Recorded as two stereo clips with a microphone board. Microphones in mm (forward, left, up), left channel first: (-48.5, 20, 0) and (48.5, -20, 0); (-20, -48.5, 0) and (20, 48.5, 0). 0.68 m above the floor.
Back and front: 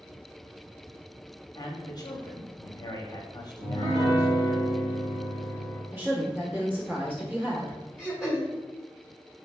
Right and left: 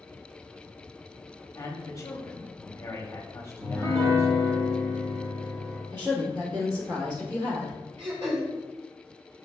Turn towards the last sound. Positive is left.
turn(degrees=60)